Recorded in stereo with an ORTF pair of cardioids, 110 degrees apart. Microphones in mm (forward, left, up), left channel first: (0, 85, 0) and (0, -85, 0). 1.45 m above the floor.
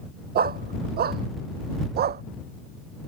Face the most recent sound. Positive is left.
turn(degrees=-70)